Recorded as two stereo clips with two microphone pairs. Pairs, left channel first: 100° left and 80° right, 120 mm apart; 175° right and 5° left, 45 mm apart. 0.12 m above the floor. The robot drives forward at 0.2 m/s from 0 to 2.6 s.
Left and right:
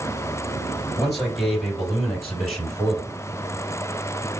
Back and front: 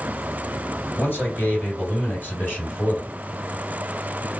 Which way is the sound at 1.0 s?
165° right.